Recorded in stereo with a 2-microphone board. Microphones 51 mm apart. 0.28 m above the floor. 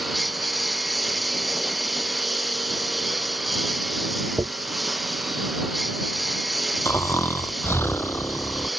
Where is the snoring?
50° left (ahead or behind).